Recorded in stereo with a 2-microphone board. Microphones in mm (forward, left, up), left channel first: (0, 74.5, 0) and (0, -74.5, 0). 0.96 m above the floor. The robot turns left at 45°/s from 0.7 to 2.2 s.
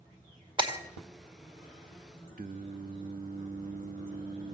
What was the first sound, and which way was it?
Breaking glass, 35° right (ahead or behind).